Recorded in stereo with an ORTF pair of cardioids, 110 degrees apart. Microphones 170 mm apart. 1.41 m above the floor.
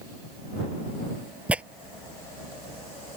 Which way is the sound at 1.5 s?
5° right.